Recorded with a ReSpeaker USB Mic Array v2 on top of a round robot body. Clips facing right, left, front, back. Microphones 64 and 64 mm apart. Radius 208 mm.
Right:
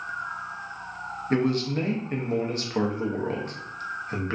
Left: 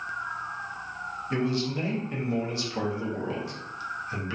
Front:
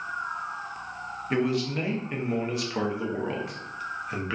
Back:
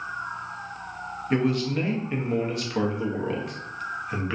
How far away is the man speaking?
About 0.8 m.